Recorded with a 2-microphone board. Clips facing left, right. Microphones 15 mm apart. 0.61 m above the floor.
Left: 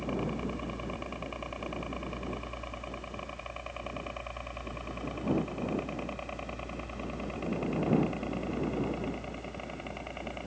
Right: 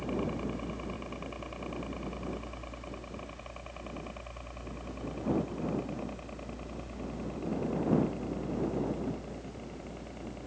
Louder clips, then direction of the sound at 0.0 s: Even; 10° left (ahead or behind).